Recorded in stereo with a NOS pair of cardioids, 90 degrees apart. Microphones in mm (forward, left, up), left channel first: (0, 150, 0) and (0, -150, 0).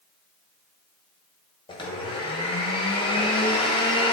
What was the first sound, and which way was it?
A blender, 15° left.